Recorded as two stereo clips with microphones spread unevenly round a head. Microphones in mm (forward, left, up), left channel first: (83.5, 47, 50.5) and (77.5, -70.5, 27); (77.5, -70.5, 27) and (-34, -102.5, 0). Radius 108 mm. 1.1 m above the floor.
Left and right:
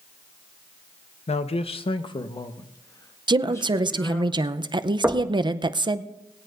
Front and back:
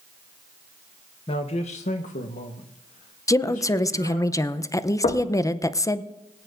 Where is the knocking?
15° right, 1.1 m.